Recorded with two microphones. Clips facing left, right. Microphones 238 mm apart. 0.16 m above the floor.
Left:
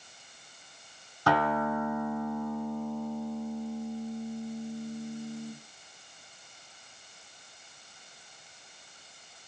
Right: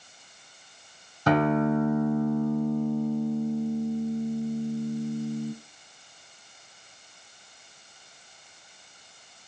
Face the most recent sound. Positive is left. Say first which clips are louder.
# right 6 dB
turn(degrees=-20)  # may be behind; listen again after turning